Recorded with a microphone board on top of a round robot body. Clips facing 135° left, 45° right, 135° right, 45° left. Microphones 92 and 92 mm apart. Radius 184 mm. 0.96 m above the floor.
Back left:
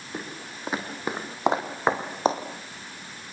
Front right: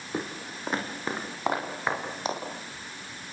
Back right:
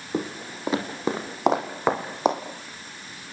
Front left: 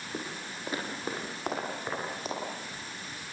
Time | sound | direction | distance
0.1 | footsteps | 125° right | 2.5 m